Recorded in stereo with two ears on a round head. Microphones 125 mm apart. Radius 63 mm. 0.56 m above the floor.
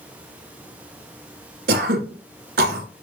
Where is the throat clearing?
85° right, 1.8 m.